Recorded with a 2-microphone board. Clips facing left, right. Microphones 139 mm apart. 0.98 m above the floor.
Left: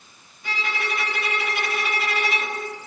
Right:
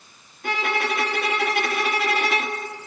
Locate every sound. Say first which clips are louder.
0.4 s a violin: right 5 dB; 65° right (ahead or behind), 2.5 m